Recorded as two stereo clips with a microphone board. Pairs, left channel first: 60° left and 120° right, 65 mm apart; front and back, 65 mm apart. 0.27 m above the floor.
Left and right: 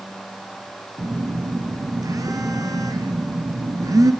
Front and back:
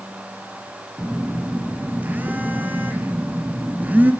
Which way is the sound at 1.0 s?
120° right.